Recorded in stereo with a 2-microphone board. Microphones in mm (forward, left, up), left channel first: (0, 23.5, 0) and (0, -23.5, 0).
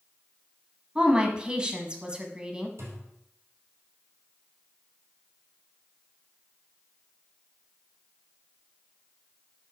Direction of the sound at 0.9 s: 20° right (ahead or behind).